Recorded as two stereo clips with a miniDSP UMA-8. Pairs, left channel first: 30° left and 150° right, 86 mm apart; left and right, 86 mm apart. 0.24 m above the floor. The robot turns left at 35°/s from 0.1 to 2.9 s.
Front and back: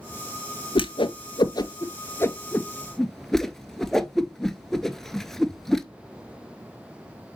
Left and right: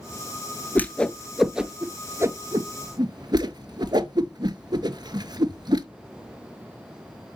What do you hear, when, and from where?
0.8 s a whoosh: 20° left, 0.6 m; by 5.8 s 55° right, 0.6 m